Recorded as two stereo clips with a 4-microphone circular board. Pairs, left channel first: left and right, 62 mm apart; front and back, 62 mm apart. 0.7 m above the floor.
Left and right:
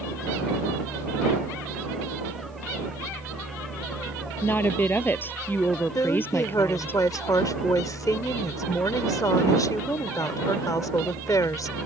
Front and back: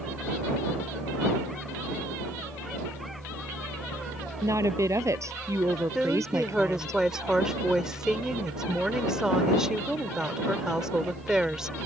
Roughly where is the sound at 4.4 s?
Behind left.